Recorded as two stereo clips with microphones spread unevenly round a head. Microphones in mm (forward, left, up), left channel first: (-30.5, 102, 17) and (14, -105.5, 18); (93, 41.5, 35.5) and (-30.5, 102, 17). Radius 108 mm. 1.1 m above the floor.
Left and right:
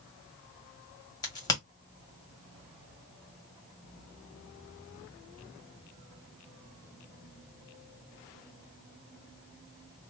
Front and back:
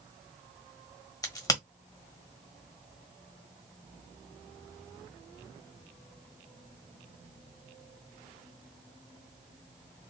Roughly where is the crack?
Ahead left.